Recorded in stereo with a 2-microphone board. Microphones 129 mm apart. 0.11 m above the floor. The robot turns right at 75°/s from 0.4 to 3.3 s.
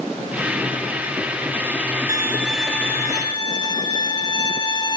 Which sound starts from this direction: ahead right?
A violin, at 2.1 s.